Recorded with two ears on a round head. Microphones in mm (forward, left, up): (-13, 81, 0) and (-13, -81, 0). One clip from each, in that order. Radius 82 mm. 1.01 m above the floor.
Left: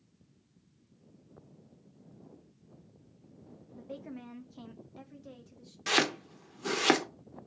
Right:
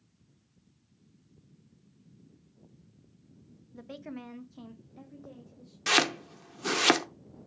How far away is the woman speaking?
About 1.0 m.